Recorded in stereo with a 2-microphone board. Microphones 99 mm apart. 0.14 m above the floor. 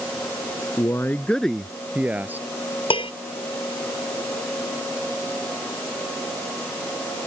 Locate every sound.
0.8 s a man speaking: 35° left (ahead or behind); by 2.5 s 20° right (ahead or behind)
2.9 s dishes clattering: 65° left (ahead or behind)